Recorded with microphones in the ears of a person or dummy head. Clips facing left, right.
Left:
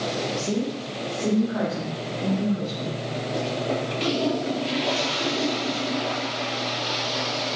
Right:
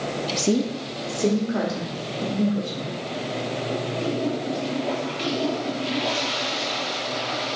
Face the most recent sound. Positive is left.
turn(degrees=-40)  # may be behind; listen again after turning